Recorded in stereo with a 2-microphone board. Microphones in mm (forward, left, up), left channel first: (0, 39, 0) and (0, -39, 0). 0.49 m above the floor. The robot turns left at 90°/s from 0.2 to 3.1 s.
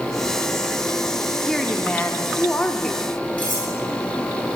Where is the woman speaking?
5° left (ahead or behind), 0.8 m; by 3.0 s 15° left (ahead or behind), 0.8 m.